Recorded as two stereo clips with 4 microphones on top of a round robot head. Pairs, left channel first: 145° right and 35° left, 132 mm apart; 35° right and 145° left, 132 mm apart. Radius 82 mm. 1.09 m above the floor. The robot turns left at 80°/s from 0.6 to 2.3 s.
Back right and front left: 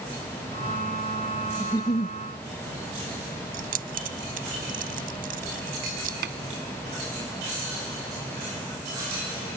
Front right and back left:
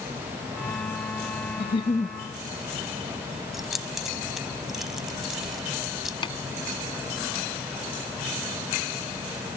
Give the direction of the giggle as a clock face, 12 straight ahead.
2 o'clock.